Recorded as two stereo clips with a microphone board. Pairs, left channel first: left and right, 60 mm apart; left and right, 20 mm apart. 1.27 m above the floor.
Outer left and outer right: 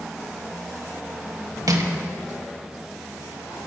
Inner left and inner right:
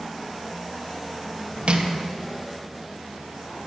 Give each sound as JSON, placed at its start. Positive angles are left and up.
{"t": 1.7, "sound": "crushing", "side_deg": -70, "distance_m": 0.8}